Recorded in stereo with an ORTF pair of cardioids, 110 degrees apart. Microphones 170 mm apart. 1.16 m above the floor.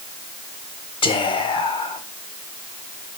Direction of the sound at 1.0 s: 30° left.